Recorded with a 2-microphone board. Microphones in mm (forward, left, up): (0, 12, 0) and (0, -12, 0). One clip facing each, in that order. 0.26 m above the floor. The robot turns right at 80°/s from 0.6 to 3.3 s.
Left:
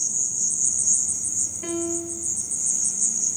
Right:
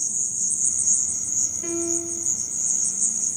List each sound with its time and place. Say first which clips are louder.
0.0 s an insect: left 1 dB; 165° left, 0.9 m; by 3.4 s 20° left, 0.9 m
1.6 s a piano: right 1 dB; 150° left, 2 m; by 2.3 s 150° right, 2 m